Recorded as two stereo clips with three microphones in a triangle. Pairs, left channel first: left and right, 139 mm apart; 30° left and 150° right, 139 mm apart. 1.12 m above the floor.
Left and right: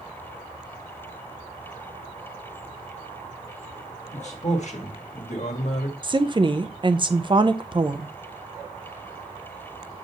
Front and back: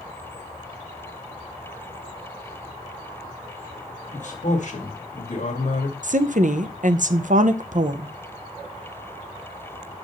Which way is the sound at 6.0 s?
145° right.